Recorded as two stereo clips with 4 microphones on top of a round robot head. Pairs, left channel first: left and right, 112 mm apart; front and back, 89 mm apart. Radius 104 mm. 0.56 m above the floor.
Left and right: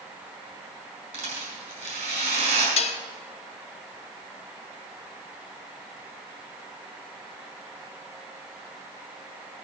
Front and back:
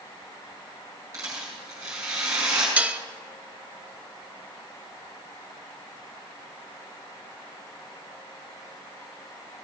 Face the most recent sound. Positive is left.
turn(degrees=110)